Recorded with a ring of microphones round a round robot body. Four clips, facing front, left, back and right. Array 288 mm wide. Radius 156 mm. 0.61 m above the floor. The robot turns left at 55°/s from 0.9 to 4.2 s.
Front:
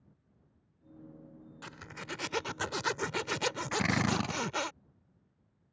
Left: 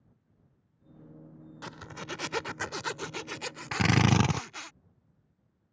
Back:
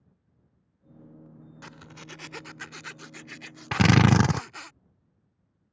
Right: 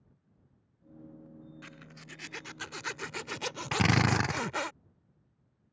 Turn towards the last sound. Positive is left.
turn(degrees=160)